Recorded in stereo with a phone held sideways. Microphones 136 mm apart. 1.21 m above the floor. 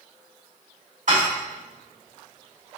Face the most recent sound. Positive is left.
turn(degrees=-70)  # may be behind; listen again after turning